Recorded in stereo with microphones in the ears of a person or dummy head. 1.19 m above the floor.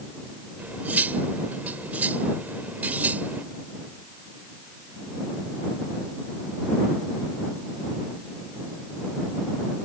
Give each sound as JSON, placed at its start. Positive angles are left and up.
{"t": 0.6, "sound": "cutlery clinking", "side_deg": -10}